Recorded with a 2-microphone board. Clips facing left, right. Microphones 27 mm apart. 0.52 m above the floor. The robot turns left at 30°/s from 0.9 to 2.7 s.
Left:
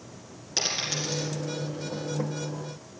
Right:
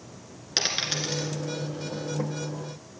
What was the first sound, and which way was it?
A dropped coin, 40° right (ahead or behind).